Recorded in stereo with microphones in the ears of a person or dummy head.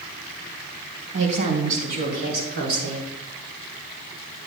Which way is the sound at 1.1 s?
40° right (ahead or behind).